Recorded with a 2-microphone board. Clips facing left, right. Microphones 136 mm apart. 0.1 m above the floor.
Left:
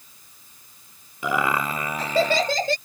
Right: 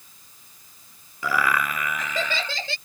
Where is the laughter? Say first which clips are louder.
Left 1 dB; 20° left (ahead or behind); by 2.8 s 45° left (ahead or behind).